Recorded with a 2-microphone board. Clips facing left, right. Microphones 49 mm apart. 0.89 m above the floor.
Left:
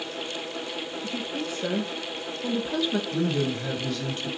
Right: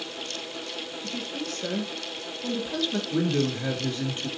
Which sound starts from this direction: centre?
A woman speaking, at 1.0 s.